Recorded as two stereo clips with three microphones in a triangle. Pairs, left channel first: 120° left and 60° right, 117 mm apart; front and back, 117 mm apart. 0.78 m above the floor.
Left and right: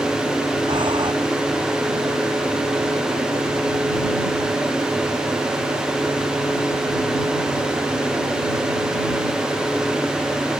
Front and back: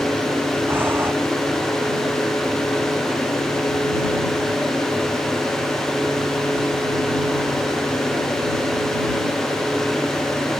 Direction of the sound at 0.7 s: 110° right.